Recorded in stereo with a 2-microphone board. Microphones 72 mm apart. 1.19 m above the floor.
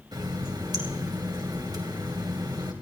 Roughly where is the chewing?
I don't hear chewing.